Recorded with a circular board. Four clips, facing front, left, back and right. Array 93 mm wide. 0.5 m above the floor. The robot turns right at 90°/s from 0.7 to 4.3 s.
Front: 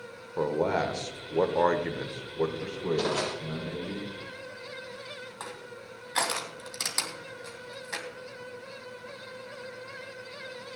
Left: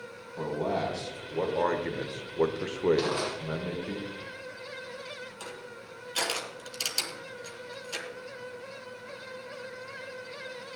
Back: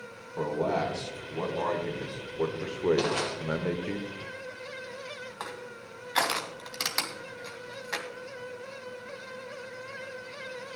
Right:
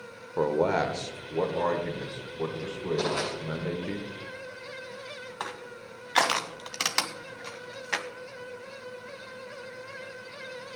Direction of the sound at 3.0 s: 165° left.